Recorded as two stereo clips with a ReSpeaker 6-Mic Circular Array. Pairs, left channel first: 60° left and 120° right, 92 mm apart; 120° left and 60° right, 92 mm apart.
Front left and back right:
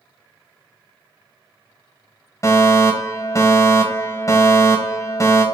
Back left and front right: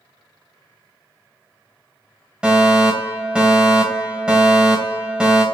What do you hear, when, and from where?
2.4 s a fire alarm: 15° left, 3 m